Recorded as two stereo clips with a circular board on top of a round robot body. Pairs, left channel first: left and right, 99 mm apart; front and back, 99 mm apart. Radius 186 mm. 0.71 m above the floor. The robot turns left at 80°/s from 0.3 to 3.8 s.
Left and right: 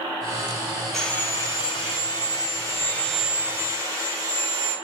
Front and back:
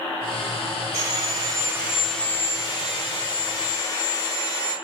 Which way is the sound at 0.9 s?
Straight behind.